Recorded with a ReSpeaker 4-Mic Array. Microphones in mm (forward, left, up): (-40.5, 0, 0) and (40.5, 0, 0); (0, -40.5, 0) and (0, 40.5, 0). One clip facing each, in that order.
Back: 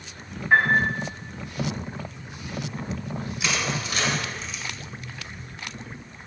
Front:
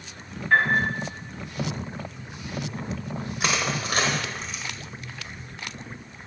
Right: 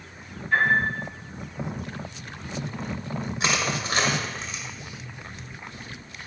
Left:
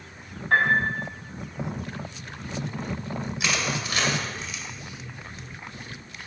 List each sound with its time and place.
0.5 s a piano: 100° left, 5 m
3.4 s crushing: 35° right, 1.7 m